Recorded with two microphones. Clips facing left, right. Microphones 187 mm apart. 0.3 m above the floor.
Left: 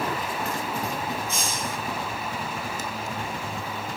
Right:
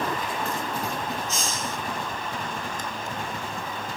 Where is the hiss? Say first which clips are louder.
Even; 60° left (ahead or behind), 5 m.